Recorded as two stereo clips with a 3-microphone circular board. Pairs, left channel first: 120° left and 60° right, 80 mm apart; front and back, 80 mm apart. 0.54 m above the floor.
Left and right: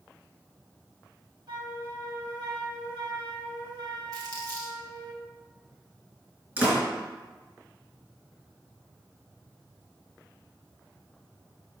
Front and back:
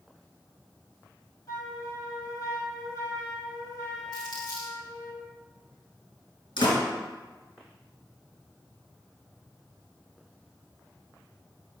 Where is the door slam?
5° left, 4.5 m.